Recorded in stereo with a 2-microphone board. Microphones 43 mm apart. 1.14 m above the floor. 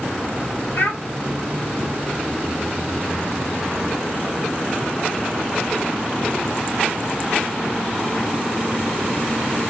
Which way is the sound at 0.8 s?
60° left (ahead or behind).